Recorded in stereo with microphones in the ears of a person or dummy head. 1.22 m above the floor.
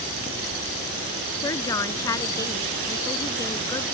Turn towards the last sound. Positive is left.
turn(degrees=20)  # may be behind; listen again after turning